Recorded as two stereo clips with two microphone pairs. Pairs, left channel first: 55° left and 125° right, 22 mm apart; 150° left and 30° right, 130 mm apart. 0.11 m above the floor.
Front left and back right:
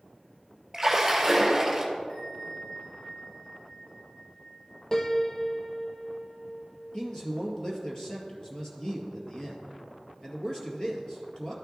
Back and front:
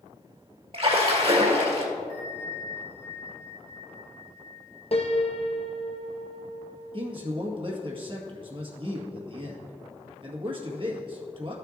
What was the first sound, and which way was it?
A splash, 50° right.